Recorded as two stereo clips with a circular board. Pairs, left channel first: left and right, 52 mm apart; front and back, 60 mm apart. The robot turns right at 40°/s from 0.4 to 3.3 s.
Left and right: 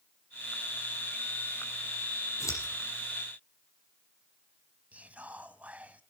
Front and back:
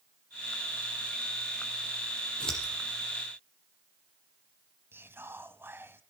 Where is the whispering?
145° right, 1.7 m.